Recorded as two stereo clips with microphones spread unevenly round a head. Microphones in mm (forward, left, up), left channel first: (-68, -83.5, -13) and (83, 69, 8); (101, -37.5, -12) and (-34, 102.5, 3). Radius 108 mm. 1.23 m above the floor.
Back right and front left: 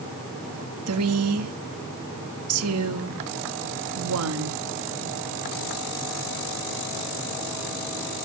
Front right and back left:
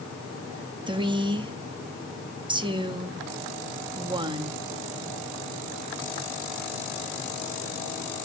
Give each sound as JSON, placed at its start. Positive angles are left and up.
{"t": 0.9, "sound": "a woman speaking", "azimuth_deg": 65, "distance_m": 1.6}